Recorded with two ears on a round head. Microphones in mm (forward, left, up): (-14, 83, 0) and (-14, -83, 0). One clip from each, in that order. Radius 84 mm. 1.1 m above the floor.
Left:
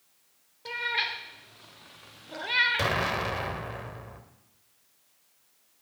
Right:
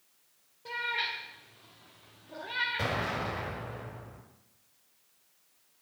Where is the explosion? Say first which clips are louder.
Left 5 dB; 55° left (ahead or behind), 1.3 m.